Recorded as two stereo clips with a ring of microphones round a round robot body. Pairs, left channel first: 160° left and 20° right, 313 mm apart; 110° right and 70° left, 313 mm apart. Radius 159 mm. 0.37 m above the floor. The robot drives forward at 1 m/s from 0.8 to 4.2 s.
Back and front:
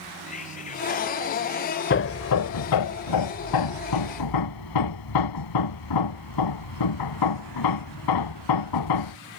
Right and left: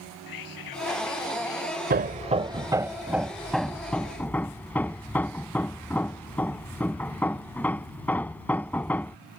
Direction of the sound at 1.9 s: 115° left.